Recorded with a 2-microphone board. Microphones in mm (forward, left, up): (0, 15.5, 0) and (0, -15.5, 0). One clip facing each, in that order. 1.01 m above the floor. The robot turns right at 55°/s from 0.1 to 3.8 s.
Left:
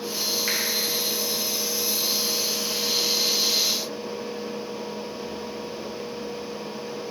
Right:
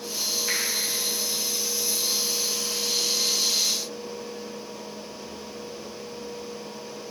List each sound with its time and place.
0.5 s a finger snap: 55° left (ahead or behind), 1.8 m; by 0.6 s 50° left (ahead or behind), 1.8 m